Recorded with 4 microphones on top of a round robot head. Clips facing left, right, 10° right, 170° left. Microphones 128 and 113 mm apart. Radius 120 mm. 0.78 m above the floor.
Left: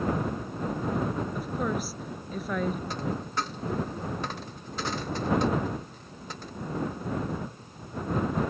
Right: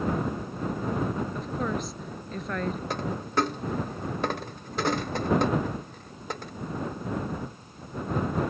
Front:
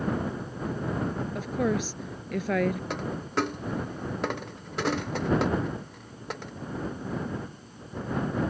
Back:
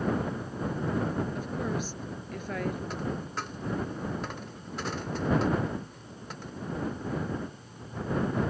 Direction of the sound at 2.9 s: 45° right.